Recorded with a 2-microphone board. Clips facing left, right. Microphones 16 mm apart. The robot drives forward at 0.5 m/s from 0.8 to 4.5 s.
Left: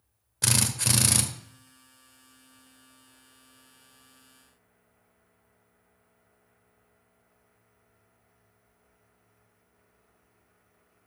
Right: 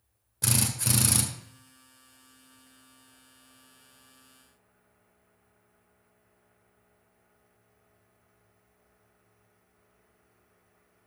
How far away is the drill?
About 1.3 m.